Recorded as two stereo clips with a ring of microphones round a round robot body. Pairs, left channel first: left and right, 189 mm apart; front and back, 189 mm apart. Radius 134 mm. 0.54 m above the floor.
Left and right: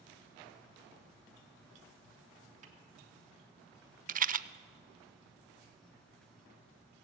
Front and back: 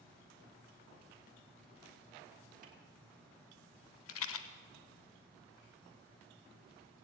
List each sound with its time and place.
2.6 s a snare drum: 140° right, 1.4 m
4.1 s a rattle: 40° right, 0.5 m